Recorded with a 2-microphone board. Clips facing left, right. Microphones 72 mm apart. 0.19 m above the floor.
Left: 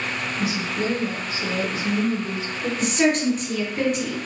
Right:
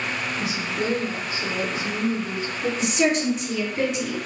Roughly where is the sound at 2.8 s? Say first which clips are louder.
Left 2 dB; left.